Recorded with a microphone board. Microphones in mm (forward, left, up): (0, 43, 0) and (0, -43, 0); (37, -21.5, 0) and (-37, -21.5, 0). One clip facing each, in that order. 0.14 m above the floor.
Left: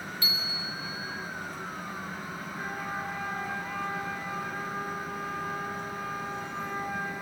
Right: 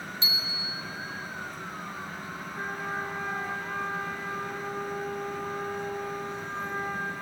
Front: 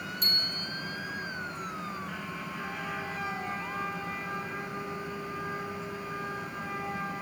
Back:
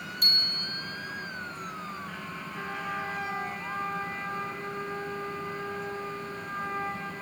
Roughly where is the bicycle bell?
Behind right.